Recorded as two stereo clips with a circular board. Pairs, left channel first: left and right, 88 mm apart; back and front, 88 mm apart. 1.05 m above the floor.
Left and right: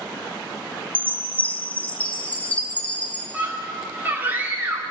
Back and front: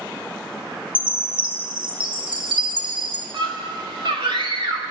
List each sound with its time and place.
0.9 s a chime: 20° left, 3 m
3.3 s a scream: 20° right, 2 m